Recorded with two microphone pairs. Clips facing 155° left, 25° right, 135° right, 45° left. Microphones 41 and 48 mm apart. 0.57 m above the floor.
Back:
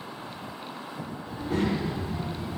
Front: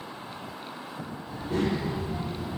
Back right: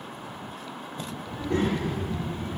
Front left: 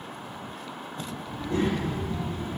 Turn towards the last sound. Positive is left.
turn(degrees=-70)